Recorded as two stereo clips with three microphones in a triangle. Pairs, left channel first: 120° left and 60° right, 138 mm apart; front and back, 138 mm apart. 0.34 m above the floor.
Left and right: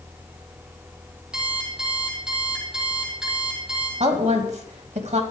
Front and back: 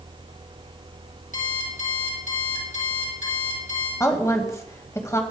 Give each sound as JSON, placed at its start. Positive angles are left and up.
{"t": 1.3, "sound": "an alarm clock", "azimuth_deg": 25, "distance_m": 5.0}
{"t": 4.0, "sound": "a woman speaking", "azimuth_deg": -65, "distance_m": 2.5}